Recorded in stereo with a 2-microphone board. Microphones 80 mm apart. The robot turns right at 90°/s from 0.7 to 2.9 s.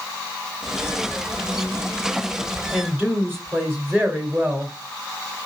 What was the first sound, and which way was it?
A woman speaking, 5° right (ahead or behind).